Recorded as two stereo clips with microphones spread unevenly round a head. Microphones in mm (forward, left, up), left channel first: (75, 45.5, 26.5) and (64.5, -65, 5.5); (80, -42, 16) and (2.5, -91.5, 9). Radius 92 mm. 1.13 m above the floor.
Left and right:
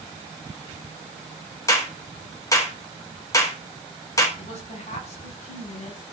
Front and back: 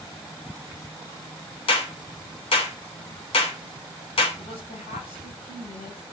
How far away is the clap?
About 4 m.